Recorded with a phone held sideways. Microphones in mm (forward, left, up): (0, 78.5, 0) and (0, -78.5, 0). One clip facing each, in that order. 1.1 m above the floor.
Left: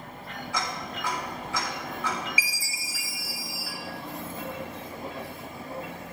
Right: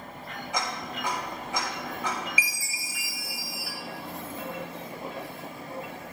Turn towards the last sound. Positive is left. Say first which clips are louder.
# even
turn(degrees=25)  # may be behind; listen again after turning